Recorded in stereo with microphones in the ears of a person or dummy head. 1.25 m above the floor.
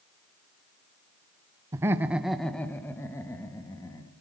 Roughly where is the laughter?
Centre.